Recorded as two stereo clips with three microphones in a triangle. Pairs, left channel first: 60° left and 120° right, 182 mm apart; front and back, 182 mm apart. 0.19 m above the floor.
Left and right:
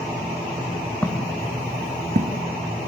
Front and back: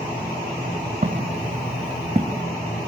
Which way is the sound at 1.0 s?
140° left.